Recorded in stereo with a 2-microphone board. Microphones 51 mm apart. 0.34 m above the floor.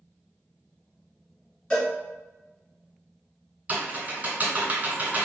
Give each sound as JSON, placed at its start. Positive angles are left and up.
{"t": 1.7, "sound": "a cowbell", "side_deg": 25, "distance_m": 1.9}
{"t": 3.7, "sound": "typing on a keyboard", "side_deg": -25, "distance_m": 1.6}